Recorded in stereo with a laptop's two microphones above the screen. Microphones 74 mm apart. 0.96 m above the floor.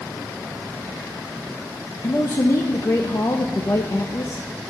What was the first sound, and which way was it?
A man speaking, 50° left (ahead or behind).